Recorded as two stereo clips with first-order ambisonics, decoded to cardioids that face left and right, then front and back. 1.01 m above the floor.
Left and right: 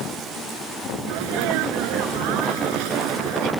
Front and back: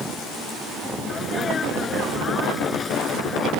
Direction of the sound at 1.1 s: 70° right.